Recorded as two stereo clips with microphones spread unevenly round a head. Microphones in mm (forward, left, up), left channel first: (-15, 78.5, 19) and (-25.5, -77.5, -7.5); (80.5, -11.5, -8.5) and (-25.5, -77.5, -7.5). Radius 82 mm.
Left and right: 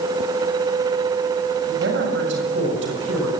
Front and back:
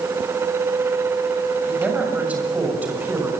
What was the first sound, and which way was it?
A man speaking, 65° right.